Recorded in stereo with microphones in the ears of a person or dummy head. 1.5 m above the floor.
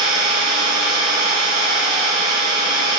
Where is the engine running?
50° left (ahead or behind), 2 m.